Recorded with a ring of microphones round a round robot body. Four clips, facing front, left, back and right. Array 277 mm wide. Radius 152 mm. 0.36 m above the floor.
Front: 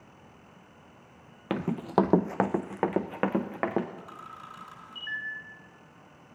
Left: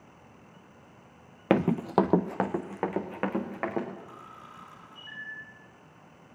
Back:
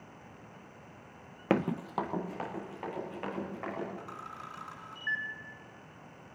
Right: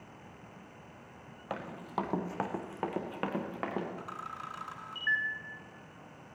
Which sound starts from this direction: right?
A camera shutter, at 4.0 s.